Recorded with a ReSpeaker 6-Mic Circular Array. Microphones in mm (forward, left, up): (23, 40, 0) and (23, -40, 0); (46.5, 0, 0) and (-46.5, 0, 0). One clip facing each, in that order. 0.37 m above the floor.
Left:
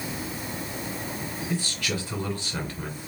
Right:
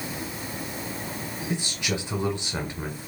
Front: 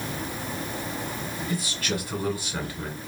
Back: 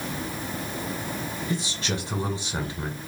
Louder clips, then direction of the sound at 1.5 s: Right 1 dB, even; 145° right.